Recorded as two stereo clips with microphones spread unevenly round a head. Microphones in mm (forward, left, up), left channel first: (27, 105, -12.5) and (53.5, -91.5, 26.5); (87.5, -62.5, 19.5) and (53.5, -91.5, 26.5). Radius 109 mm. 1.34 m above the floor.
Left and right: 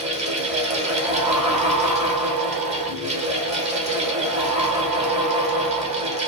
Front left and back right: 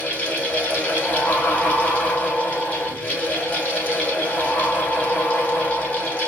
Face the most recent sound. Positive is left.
turn(degrees=-20)